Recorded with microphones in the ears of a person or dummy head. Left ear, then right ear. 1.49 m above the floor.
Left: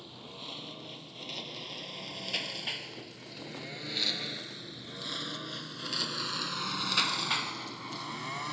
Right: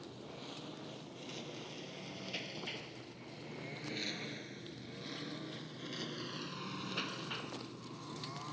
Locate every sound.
0.0 s a lawn mower: 40° left (ahead or behind); by 8.5 s 50° left (ahead or behind)